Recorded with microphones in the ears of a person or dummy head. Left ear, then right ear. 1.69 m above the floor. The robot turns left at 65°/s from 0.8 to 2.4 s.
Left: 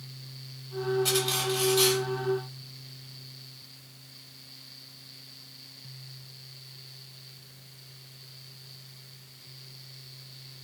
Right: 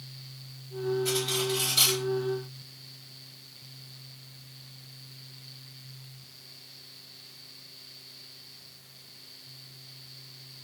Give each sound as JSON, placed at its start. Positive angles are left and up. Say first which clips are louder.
{"t": 1.1, "sound": "cutlery clinking", "louder": "left 1 dB", "azimuth_deg": 30, "distance_m": 4.5}